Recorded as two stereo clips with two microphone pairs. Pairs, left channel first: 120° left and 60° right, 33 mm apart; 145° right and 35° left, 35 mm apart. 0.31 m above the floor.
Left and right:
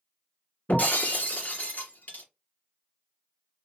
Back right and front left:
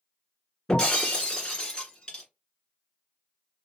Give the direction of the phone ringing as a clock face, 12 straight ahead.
No phone ringing in this recording.